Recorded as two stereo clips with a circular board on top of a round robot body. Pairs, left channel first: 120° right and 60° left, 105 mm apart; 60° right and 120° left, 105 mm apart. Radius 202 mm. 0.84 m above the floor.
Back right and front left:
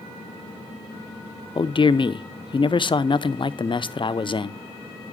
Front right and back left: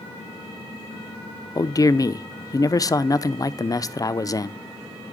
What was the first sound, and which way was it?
A man speaking, 105° right.